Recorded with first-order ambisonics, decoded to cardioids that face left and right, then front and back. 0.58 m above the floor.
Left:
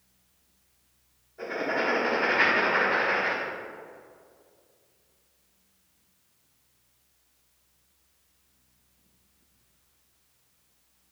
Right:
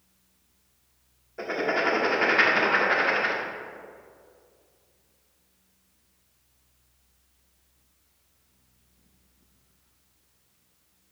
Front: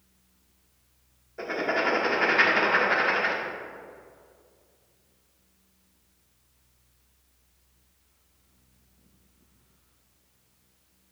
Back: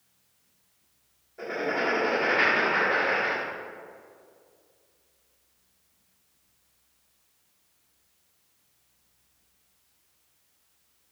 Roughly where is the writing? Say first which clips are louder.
Right 3 dB, front 2 dB; ahead right.